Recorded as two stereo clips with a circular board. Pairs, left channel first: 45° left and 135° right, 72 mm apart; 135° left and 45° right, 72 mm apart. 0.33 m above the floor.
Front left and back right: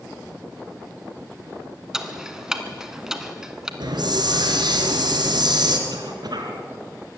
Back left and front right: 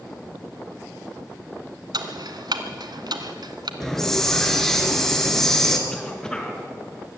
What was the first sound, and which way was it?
Ticking, 55° right.